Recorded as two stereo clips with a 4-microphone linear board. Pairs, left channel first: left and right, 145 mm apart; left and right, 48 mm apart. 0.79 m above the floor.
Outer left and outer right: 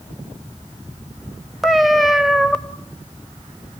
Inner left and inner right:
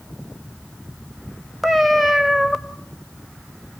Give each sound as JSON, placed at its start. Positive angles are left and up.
{"t": 1.6, "sound": "a cat meowing", "side_deg": 0, "distance_m": 0.9}